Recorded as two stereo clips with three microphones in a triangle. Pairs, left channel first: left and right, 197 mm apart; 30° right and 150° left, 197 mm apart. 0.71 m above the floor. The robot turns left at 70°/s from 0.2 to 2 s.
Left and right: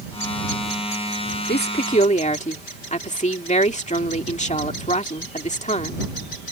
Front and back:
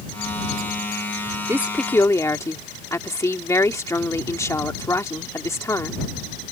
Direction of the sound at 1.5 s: 80° left.